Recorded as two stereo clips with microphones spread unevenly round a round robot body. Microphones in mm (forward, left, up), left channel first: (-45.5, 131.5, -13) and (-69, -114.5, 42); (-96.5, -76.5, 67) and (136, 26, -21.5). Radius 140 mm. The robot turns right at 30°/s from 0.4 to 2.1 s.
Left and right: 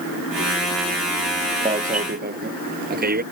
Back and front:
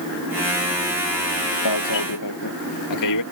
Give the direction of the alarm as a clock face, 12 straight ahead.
5 o'clock.